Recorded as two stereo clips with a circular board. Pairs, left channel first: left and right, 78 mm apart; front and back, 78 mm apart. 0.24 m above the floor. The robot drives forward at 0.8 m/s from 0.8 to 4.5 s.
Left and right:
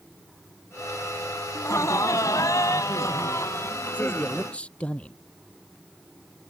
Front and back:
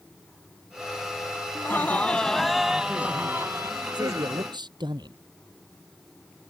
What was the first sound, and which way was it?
Laughter, 50° left.